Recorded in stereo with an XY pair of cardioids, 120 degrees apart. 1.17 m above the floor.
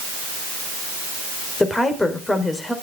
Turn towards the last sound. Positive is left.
turn(degrees=15)